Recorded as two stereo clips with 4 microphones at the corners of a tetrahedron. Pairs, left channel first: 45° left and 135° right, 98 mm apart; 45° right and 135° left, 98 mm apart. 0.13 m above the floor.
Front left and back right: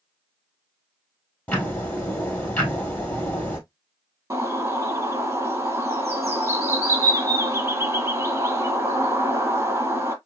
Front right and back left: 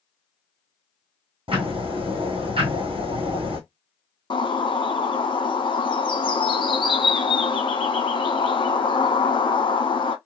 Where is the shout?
I don't hear a shout.